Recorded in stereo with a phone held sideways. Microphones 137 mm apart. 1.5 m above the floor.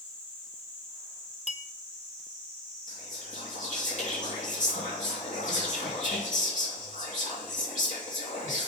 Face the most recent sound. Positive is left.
turn(degrees=60)  # may be behind; listen again after turning